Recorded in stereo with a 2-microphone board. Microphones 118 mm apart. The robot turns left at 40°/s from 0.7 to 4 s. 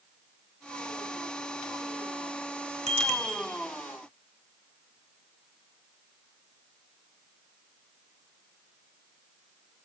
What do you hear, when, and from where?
2.9 s a bicycle bell: 70° right (ahead or behind), 3 m; by 3.4 s 85° right, 3 m